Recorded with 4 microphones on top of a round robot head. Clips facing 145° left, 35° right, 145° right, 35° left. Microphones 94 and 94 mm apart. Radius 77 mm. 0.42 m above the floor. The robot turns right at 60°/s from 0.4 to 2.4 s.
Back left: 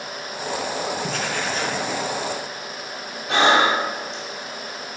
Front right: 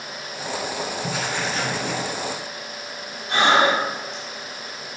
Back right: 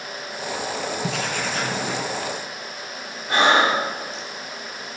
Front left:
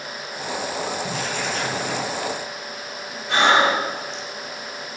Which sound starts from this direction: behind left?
Breathing, at 3.3 s.